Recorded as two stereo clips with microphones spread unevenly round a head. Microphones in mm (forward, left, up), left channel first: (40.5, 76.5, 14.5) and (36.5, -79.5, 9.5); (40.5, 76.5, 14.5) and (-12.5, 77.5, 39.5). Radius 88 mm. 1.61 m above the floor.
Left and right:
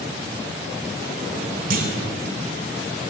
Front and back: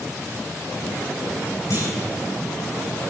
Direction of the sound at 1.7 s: 85° right.